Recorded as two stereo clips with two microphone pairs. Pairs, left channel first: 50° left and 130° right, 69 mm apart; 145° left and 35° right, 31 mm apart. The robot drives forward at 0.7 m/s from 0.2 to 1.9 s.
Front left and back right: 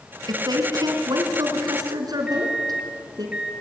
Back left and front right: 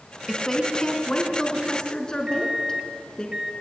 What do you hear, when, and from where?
0.3 s a woman speaking: 140° right, 3.5 m; by 3.3 s 150° right, 4.5 m
2.3 s a microwave: 70° right, 0.9 m